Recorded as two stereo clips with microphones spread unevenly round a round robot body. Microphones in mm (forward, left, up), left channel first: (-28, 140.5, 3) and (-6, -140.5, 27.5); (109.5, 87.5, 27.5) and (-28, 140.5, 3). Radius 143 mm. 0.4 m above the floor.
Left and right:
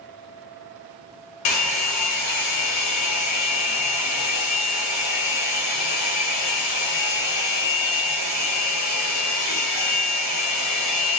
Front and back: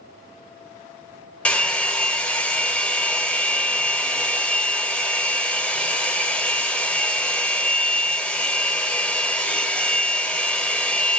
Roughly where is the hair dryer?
Ahead left.